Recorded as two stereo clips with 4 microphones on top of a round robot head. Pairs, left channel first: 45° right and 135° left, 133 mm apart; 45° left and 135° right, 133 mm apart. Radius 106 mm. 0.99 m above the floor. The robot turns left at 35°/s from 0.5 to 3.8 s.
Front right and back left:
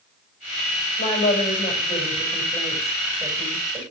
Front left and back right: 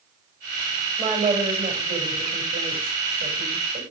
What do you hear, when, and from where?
1.0 s a woman speaking: 70° right, 6 m; by 3.8 s 170° right, 6 m